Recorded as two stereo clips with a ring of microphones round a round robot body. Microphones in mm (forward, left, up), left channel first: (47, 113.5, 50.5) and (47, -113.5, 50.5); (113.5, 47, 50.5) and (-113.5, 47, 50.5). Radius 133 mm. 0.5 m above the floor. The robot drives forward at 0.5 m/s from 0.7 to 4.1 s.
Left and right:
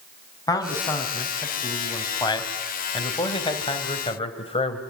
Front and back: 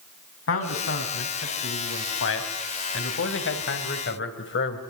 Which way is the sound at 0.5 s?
15° left.